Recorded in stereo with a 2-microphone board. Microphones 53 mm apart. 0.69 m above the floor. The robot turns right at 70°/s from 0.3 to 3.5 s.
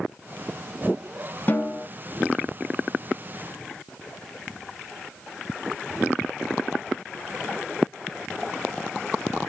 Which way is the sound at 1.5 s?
40° left (ahead or behind).